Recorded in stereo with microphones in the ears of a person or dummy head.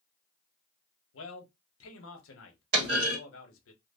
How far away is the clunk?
About 1.6 m.